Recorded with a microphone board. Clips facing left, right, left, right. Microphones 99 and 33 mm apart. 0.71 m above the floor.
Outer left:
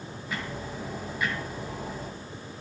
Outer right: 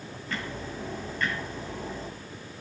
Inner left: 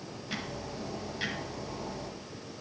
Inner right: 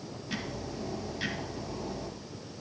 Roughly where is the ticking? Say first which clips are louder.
Even, inner right 1 dB; centre.